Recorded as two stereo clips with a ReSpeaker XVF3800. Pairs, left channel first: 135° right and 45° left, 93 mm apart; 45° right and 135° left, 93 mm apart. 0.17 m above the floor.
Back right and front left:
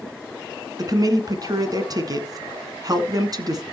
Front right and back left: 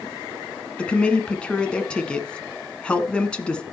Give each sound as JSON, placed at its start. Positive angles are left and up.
{"t": 0.8, "sound": "a woman speaking", "azimuth_deg": 30, "distance_m": 1.4}